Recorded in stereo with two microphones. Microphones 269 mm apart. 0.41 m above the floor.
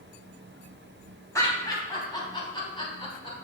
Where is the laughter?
10° left (ahead or behind), 3 m; by 3.3 s 20° left (ahead or behind), 4 m.